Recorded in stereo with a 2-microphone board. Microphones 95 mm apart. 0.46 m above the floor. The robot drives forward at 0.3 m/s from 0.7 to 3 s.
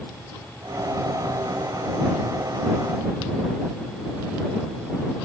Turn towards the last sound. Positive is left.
No sound to turn to.